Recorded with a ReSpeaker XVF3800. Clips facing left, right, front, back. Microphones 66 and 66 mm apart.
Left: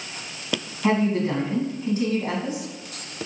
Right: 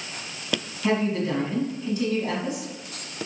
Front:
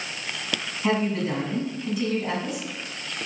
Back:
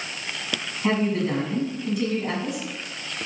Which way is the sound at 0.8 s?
90° left.